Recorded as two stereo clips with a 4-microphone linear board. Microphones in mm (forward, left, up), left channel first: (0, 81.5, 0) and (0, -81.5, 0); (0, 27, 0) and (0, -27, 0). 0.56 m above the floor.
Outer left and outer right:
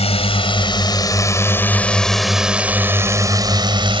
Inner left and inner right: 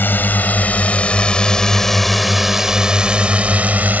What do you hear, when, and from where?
0.0 s a drone: 40° left (ahead or behind); by 4.0 s 35° right (ahead or behind)